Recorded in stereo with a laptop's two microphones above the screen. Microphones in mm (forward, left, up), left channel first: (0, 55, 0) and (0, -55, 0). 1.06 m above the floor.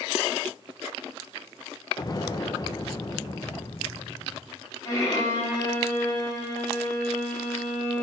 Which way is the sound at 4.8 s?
35° left (ahead or behind).